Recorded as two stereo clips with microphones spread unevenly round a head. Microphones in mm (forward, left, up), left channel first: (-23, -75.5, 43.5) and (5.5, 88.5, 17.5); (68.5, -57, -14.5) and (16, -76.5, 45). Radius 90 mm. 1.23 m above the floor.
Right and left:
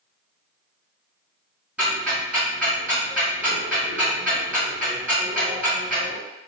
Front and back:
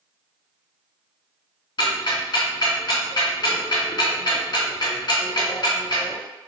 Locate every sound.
1.8 s ticking: 10° right, 1.7 m